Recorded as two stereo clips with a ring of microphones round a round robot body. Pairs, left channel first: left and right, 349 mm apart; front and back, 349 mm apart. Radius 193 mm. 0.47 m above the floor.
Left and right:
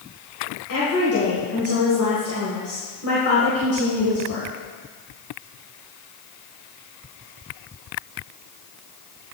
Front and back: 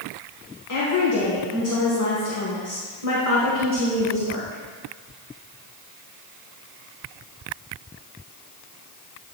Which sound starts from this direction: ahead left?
A woman speaking, at 0.7 s.